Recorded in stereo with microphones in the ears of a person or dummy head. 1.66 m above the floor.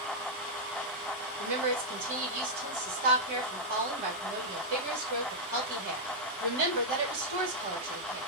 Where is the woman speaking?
45° right (ahead or behind), 3 m.